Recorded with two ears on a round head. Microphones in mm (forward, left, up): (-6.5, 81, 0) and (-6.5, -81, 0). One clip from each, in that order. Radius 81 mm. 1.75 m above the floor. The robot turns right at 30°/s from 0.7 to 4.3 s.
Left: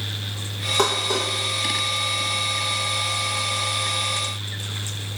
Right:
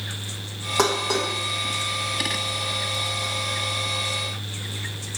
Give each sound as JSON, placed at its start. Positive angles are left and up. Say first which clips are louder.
{"t": 0.8, "sound": "dishes clattering", "louder": "even", "side_deg": -5, "distance_m": 1.1}